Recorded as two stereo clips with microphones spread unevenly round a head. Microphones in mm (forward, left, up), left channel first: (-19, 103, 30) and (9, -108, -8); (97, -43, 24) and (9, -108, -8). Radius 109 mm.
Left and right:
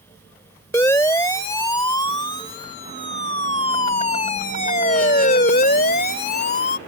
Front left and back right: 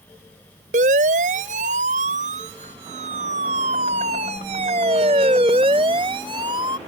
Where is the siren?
175° left; by 6.8 s 145° left.